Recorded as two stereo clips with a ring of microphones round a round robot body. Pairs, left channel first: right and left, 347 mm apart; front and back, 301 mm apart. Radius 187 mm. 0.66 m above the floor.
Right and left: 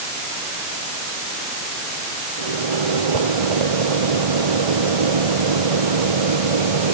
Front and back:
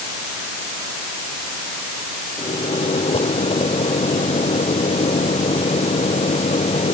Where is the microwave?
70° left.